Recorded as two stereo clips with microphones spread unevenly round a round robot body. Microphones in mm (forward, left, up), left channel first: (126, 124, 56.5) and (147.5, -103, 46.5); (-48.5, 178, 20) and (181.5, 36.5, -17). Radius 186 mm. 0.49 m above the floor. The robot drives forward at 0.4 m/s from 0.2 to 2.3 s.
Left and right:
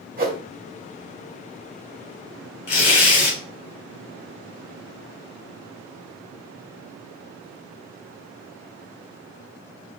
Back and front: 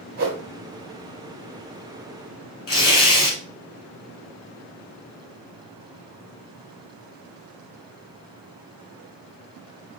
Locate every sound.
0.2 s a whoosh: 60° right, 1.5 m; by 0.4 s 65° right, 1.5 m
2.7 s tearing paper: 115° left, 4 m